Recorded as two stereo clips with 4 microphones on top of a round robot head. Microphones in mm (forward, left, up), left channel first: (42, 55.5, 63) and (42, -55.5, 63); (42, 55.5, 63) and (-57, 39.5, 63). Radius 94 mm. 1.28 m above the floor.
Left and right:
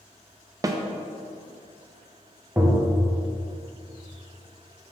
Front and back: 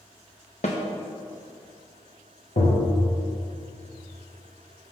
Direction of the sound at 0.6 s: 35° right.